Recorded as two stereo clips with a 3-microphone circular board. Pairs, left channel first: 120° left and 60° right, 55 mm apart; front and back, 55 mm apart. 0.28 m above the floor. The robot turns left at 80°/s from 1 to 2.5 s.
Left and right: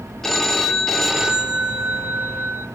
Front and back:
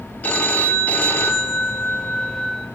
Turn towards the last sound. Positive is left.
turn(degrees=-80)